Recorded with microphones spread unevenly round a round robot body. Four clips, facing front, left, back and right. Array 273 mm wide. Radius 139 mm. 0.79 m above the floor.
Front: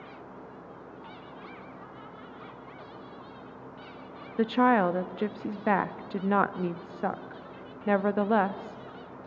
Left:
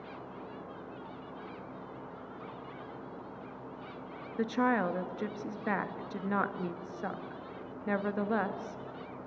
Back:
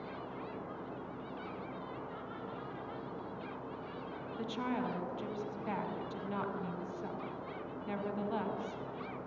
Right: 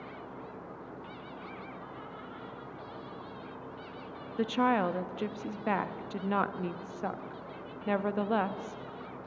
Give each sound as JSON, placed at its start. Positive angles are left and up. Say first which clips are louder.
{"t": 4.4, "sound": "a woman speaking", "louder": "right 2 dB, front 15 dB", "azimuth_deg": -5, "distance_m": 1.0}